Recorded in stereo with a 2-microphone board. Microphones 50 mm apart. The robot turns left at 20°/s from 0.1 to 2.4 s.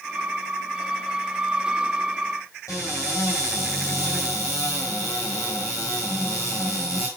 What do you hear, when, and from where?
2.7 s a cupboard door: 85° left, 4.5 m